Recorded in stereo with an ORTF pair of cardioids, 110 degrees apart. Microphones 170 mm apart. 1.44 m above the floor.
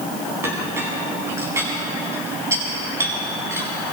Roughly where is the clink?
Ahead.